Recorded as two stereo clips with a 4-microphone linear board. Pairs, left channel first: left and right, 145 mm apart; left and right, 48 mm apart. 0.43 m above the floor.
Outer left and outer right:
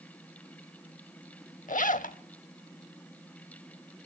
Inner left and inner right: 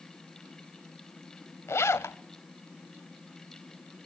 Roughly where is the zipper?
Left.